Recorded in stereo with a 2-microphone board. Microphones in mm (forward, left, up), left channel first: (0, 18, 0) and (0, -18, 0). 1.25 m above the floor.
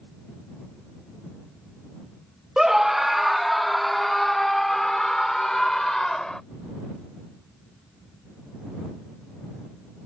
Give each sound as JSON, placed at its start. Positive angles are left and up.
{"t": 2.6, "sound": "a scream", "side_deg": -15}